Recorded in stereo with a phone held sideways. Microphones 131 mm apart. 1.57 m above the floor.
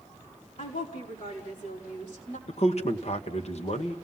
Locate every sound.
0.6 s a woman speaking: 65° left (ahead or behind), 5 m; by 2.4 s 80° left, 6.5 m
2.5 s a man speaking: 55° left (ahead or behind), 1.6 m